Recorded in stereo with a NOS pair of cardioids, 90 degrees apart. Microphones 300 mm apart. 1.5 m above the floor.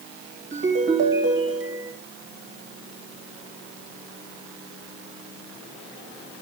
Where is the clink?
No clink in this recording.